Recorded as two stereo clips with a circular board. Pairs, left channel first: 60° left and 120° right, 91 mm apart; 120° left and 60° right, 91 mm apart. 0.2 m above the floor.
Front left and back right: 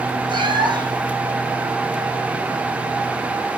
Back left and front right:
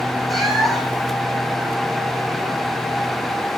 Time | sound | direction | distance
0.3 | a cat meowing | 150° right | 2.5 m